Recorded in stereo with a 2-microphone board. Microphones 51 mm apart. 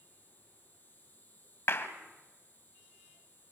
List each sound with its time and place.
0.0 s an insect: 35° left (ahead or behind), 6 m
1.7 s a clap: 50° left (ahead or behind), 1.8 m